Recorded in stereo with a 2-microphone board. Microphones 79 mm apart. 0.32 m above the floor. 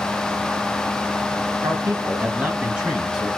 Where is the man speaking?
40° right (ahead or behind), 2 m; by 3.3 s 5° right (ahead or behind), 3.5 m.